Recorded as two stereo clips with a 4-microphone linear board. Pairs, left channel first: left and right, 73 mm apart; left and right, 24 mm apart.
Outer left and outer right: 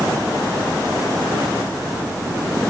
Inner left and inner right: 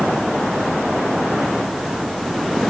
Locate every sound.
Only background noise.